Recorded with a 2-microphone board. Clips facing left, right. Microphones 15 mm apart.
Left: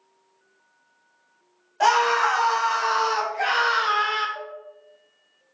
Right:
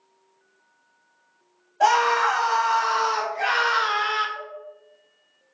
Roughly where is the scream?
Left.